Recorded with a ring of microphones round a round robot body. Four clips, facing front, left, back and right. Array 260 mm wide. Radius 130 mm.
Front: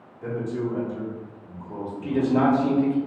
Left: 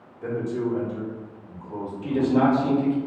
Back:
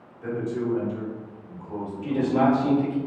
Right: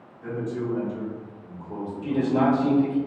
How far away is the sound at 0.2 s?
About 1.4 m.